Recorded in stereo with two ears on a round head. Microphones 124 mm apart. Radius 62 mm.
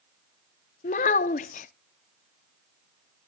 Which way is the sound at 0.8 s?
55° left (ahead or behind).